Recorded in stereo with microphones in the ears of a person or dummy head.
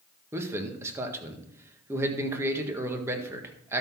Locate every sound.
0.3 s a man speaking: 15° right (ahead or behind), 1.6 m